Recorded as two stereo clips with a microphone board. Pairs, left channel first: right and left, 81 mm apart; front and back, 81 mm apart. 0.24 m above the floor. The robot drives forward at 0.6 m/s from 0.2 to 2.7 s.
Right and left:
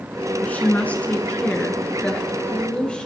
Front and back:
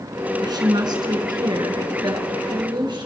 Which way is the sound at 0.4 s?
160° right.